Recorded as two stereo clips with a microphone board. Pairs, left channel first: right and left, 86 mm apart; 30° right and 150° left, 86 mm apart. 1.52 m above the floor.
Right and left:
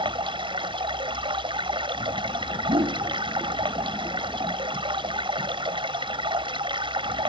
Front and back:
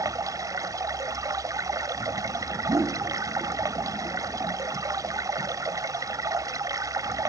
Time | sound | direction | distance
0.0 | running water | 100° left | ?
2.7 | a whoosh | 95° left | ?